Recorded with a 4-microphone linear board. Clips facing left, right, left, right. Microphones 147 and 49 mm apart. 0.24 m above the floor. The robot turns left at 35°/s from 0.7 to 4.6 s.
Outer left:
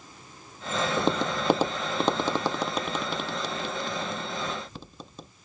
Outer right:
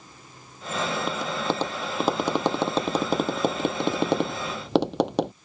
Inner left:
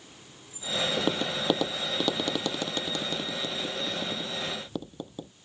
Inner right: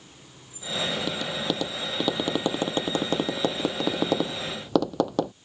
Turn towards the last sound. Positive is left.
turn(degrees=-80)